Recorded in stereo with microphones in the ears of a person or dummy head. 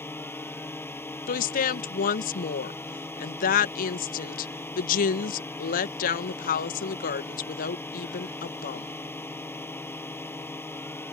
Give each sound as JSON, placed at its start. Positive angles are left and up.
{"t": 0.0, "sound": "a drone", "side_deg": 10}
{"t": 1.3, "sound": "a woman speaking", "side_deg": 45}